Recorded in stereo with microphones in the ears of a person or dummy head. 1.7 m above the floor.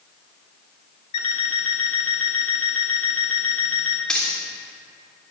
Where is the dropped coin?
5° left (ahead or behind), 2.0 m.